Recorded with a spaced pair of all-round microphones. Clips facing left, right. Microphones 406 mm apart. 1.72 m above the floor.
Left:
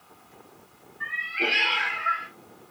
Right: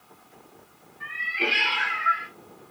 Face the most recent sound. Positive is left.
turn(degrees=-40)  # may be behind; listen again after turning